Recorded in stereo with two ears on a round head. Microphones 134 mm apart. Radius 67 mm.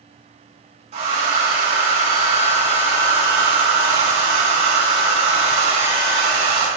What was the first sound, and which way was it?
A hair dryer, 45° right (ahead or behind).